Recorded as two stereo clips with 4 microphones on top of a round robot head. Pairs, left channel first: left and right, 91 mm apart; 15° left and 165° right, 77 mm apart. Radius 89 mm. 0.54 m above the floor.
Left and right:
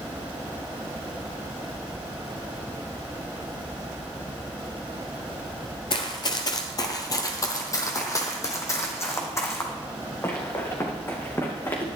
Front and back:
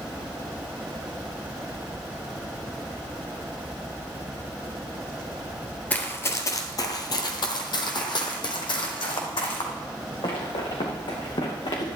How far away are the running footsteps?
About 0.6 m.